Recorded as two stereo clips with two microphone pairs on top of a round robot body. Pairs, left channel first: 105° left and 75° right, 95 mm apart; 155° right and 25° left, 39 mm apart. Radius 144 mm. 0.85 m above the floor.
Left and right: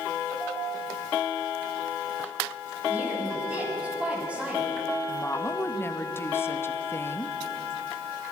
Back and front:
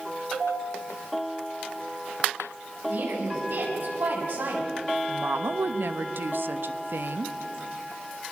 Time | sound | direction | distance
2.9 | a woman speaking | straight ahead | 6.5 m
5.1 | a woman speaking | 45° left | 1.0 m